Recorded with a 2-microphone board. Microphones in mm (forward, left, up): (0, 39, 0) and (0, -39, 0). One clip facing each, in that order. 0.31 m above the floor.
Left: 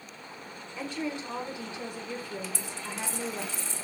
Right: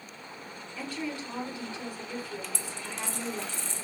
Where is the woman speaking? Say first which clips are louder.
Left 2 dB; 20° left (ahead or behind), 1.0 m.